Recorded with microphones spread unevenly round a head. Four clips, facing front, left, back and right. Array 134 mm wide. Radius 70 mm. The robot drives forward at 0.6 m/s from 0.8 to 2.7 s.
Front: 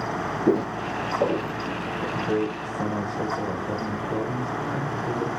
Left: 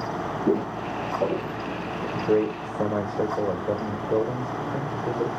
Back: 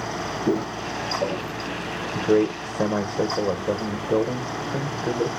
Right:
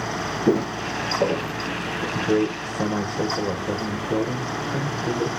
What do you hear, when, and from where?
0.5 s footsteps: 65° right, 1.8 m; by 2.0 s 50° right, 2.5 m
2.1 s a man speaking: 165° left, 0.9 m; by 5.3 s 170° left, 1.2 m